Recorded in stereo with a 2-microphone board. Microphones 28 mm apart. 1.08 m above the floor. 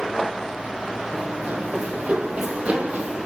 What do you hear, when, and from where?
1.1 s running footsteps: 60° right (ahead or behind), 2.5 m; by 3.3 s 55° right (ahead or behind), 2.5 m